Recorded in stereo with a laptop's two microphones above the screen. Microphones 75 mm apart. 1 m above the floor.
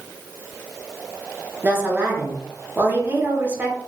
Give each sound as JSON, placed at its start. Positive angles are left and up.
{"t": 1.6, "sound": "a woman speaking", "side_deg": -25, "distance_m": 1.1}